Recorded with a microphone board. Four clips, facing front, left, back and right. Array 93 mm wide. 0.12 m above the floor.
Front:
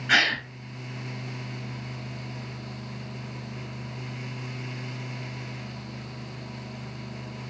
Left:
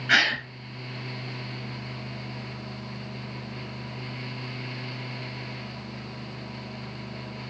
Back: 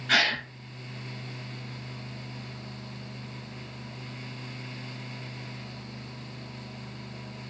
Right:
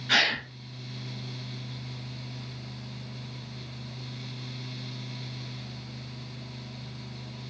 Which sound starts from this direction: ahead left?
A gasp, at 0.1 s.